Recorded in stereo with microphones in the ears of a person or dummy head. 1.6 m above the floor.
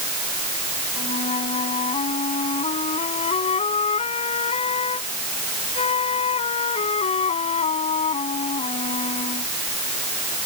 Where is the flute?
35° left (ahead or behind).